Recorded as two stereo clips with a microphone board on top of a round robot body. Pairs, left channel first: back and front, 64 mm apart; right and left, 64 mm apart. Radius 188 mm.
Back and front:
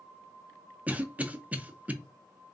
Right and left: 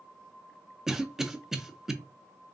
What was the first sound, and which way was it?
A cough, 15° left.